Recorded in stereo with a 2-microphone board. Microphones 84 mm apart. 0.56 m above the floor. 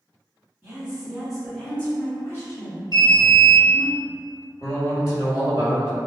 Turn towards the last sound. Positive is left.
turn(degrees=55)  # may be behind; listen again after turning